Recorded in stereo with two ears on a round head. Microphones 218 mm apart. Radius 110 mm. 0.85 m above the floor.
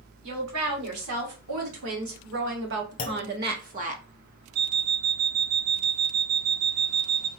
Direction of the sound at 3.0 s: 35° left (ahead or behind).